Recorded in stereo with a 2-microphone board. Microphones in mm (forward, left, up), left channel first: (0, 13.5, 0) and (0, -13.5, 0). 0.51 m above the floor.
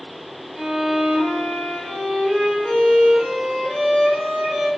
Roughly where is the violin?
Centre.